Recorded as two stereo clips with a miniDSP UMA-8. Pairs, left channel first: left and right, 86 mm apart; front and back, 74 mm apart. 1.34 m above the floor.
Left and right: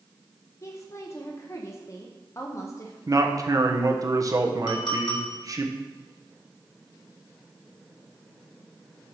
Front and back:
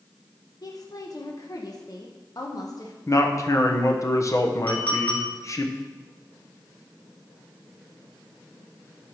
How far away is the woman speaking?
About 0.8 m.